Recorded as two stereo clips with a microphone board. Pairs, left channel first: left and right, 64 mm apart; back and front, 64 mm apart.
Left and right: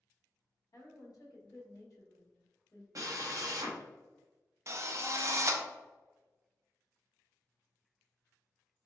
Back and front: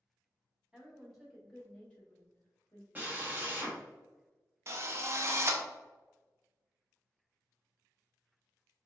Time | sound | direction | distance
0.7 | a woman speaking | 80° left | 1.7 m
3.0 | a drill | 60° right | 0.9 m
4.7 | a drill | 50° right | 0.6 m